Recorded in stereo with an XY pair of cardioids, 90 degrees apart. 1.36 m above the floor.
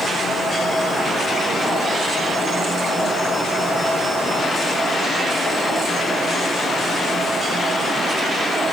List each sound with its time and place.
Only background noise.